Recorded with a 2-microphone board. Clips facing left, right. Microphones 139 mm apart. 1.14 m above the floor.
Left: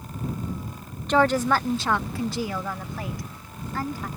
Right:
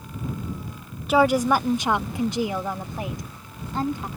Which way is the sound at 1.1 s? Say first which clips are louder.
Right 2 dB; 5° right (ahead or behind).